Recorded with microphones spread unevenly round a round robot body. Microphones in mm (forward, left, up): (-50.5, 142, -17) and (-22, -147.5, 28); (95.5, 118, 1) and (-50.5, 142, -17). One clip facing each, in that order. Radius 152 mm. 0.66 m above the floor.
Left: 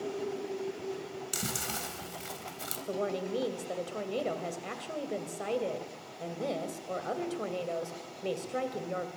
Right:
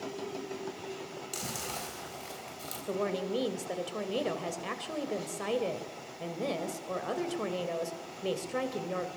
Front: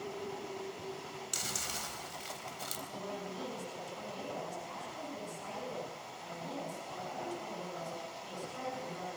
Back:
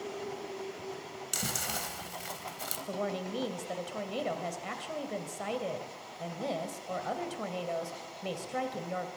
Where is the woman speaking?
170° right, 3 m.